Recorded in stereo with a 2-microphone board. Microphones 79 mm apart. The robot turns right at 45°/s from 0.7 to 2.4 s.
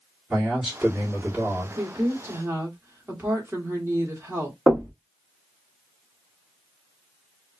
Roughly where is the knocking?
Right.